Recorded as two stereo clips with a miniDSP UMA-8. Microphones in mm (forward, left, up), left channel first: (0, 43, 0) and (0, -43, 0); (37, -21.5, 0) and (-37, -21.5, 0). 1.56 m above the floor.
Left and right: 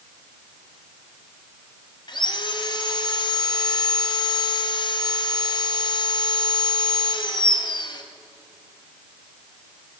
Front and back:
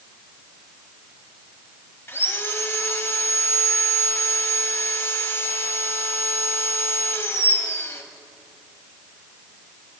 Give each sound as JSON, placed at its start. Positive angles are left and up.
{"t": 2.1, "sound": "sawing", "azimuth_deg": 55, "distance_m": 0.6}